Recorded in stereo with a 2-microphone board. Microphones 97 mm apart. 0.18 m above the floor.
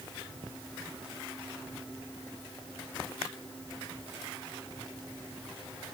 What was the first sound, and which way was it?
Only background noise.